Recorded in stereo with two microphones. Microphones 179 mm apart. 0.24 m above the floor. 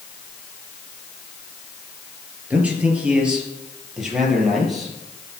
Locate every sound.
2.5 s a man speaking: 10° right (ahead or behind), 4 m; by 5.0 s centre (ahead or behind), 5.5 m